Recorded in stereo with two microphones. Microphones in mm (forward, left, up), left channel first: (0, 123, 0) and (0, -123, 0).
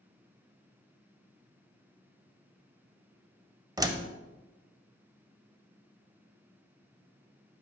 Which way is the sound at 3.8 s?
15° right (ahead or behind).